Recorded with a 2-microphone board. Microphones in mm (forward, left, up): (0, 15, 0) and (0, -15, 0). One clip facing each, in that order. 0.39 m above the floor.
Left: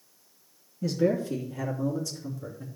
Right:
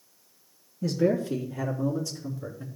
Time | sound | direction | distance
0.8 | a man speaking | 10° left (ahead or behind) | 3.5 m